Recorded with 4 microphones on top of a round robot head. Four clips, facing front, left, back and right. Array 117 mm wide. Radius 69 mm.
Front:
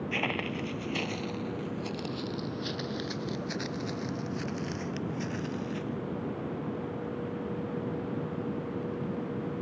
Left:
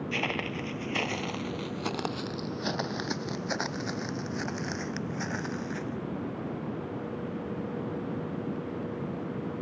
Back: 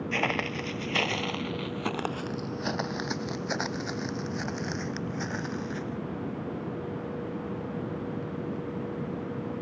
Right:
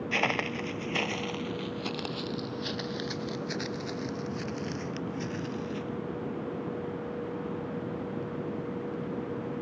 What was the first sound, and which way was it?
Footsteps, 120° right.